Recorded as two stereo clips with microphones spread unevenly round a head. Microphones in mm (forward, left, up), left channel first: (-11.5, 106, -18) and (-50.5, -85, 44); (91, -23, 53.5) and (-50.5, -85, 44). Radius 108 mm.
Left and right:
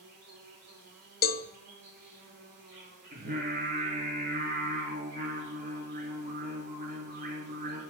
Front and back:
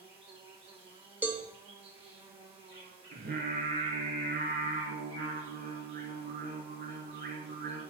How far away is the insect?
About 5 m.